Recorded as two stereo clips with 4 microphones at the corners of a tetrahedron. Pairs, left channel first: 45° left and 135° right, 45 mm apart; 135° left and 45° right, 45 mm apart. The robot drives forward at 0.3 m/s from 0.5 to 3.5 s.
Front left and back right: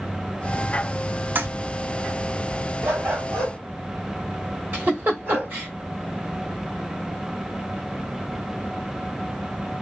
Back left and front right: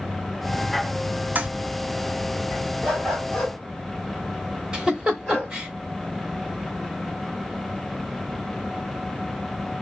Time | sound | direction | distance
1.4 | a toilet flushing | 100° right | 0.5 m
2.8 | a dog barking | 145° right | 2.5 m
4.7 | a giggle | 115° right | 1.1 m